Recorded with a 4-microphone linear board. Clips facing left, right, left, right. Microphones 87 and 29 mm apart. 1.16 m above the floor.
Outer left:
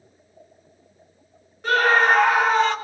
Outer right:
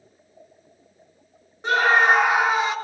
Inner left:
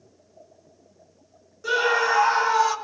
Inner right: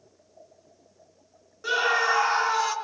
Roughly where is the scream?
Right.